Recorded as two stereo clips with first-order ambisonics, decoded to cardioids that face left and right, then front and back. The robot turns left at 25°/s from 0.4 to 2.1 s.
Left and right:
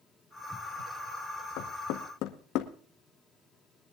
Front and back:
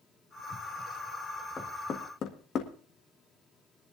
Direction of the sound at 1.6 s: 70° left.